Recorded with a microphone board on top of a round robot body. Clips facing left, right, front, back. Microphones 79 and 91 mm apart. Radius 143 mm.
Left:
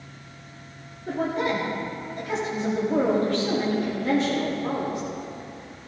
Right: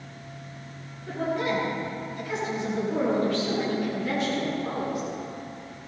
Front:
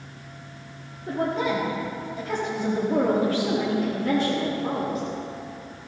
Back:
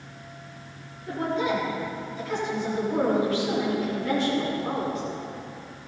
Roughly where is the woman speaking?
Ahead left.